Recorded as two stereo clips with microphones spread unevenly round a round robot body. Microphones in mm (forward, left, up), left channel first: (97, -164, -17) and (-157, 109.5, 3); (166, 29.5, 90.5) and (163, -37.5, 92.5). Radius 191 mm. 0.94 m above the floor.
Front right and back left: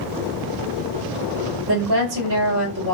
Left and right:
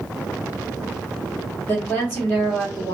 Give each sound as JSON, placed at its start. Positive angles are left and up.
{"t": 1.7, "sound": "a woman speaking", "azimuth_deg": 145, "distance_m": 1.3}